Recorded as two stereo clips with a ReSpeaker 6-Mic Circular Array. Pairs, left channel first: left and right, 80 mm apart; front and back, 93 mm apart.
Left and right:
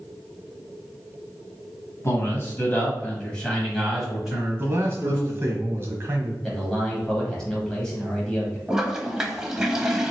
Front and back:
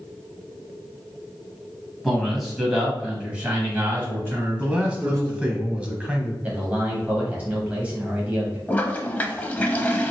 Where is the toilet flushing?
25° right, 0.6 m.